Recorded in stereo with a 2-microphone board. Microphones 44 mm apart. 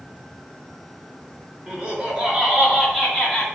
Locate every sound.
1.7 s laughter: 25° right (ahead or behind), 1.8 m; by 3.5 s 10° left (ahead or behind), 1.6 m